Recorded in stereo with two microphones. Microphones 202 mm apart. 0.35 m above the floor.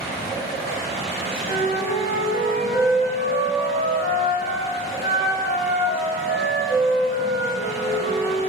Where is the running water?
Centre (ahead or behind), 1.5 m.